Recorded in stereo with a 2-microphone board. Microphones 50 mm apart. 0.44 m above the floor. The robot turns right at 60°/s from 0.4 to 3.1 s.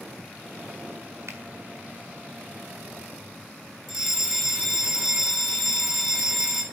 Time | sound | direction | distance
1.3 | a finger snap | 60° right (ahead or behind) | 4.5 m
3.9 | a fire alarm | 10° right (ahead or behind) | 4.5 m